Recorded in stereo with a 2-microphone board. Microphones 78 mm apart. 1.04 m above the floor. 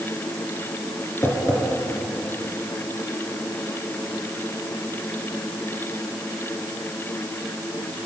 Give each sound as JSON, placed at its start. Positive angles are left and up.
{"t": 1.2, "sound": "tapping", "side_deg": 40, "distance_m": 3.5}